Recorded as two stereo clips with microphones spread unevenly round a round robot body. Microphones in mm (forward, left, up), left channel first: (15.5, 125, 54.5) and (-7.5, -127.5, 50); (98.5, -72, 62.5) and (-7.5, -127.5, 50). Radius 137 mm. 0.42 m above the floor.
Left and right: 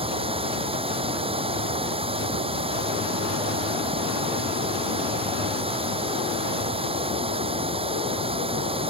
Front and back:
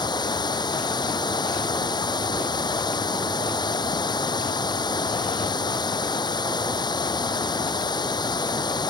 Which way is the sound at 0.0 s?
25° right.